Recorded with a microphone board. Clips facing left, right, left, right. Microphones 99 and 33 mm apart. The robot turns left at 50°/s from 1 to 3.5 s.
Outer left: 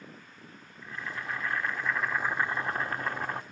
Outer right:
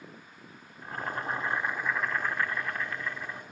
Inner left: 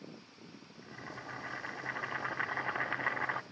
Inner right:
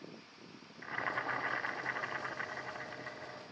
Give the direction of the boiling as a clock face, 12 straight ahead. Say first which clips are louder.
Outer right 4 dB, inner right 10 dB; 4 o'clock.